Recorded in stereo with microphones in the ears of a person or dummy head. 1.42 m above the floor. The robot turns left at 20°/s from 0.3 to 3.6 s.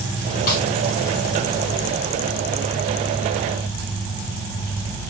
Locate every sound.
0.5 s a snare drum: 50° left (ahead or behind), 2.5 m; by 0.7 s 45° left (ahead or behind), 2.5 m